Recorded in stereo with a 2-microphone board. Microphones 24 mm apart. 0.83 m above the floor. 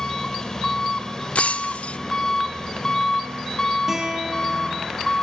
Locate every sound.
0.0 s an engine running: 25° left (ahead or behind), 2.5 m
1.4 s breaking glass: 60° left (ahead or behind), 0.7 m
3.9 s a guitar: 20° right (ahead or behind), 4.5 m